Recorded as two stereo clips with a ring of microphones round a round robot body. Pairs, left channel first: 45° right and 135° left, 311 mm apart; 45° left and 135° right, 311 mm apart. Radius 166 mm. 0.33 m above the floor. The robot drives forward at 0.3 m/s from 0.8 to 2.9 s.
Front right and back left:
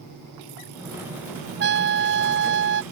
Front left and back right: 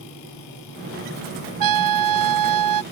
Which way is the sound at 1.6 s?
165° right.